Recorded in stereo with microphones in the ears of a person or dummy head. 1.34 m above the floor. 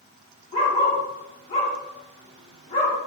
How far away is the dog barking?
About 1.1 m.